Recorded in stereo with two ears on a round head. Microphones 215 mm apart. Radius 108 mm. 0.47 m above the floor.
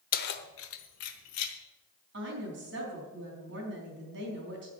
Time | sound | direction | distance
0.1 | keys jangling | 35° left (ahead or behind) | 0.9 m
2.1 | a woman speaking | 50° right (ahead or behind) | 4 m